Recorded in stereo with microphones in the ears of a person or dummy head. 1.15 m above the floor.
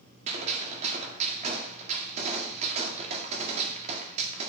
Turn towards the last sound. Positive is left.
turn(degrees=-40)  # may be behind; listen again after turning